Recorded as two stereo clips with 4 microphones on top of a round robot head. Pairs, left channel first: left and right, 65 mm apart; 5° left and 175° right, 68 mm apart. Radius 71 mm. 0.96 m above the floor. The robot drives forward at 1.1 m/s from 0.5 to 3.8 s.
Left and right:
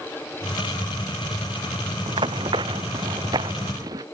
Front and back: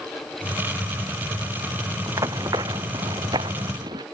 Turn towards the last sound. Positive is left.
turn(degrees=-135)